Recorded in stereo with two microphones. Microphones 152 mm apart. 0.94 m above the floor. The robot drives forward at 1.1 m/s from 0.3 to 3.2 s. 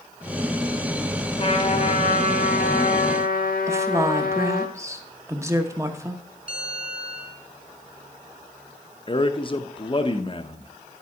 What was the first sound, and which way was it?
A trumpet, 40° left (ahead or behind).